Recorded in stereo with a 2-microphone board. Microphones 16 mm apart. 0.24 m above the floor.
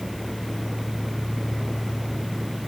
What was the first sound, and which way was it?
Only background noise.